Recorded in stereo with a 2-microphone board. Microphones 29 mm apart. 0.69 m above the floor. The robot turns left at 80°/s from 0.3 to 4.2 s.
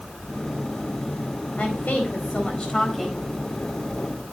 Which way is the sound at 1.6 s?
115° left.